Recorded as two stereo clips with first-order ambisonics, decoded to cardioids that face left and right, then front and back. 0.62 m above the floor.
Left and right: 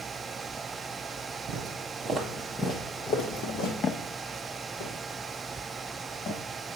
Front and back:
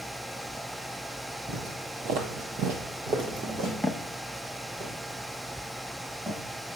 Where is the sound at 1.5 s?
130° right, 1.6 m; by 3.7 s 125° left, 2 m.